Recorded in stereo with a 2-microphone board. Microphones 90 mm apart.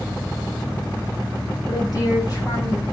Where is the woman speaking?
45° left (ahead or behind), 4 m; by 2.8 s 40° left (ahead or behind), 5 m.